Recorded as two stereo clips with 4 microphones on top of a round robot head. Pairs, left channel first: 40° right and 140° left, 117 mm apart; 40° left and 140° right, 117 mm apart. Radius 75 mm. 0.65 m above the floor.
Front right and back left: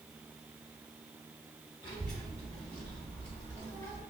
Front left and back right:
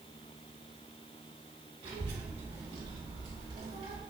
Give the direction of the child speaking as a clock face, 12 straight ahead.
3 o'clock.